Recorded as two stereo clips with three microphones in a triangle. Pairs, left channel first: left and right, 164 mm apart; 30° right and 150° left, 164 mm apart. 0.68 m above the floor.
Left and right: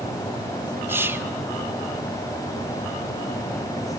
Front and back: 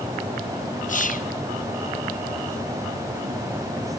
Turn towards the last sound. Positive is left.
turn(degrees=-15)